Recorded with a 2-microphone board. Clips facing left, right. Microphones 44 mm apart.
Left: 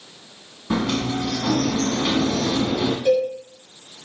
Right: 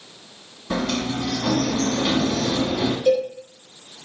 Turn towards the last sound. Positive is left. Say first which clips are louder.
# even
turn(degrees=35)  # may be behind; listen again after turning